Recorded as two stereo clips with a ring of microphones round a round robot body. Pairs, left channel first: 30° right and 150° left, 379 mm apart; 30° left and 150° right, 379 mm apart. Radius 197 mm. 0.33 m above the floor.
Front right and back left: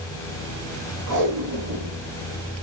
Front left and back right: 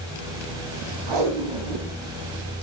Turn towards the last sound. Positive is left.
turn(degrees=-170)